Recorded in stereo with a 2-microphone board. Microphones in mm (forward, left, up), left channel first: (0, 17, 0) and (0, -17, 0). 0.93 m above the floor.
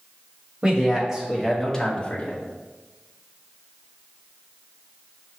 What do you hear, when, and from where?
0.6 s a man speaking: 20° right (ahead or behind), 1.6 m; by 2.4 s 45° left (ahead or behind), 1.0 m